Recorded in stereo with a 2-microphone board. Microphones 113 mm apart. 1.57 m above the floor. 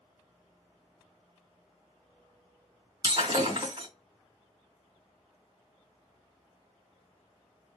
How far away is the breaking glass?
About 2.5 m.